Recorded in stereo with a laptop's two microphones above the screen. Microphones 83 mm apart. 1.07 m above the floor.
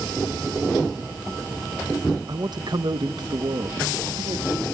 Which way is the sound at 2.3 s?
55° right (ahead or behind).